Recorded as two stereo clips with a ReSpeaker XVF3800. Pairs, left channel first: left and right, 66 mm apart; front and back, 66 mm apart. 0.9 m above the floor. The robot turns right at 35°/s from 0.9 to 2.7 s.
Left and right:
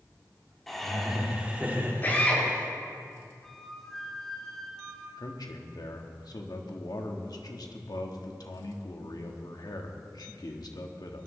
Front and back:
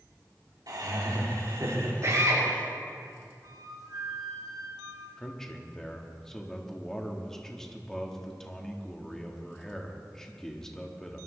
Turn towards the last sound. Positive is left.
turn(degrees=80)